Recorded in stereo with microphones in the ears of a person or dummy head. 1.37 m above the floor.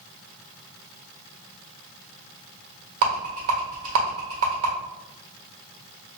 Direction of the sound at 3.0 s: 50° right (ahead or behind).